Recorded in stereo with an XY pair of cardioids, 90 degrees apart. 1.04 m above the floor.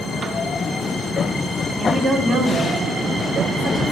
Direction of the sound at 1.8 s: 60° right.